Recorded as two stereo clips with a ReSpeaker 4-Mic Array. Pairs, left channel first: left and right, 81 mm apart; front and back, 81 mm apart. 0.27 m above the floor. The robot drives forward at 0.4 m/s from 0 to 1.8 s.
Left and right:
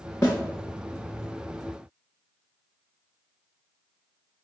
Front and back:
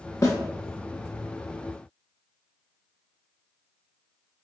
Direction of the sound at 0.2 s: 40° left.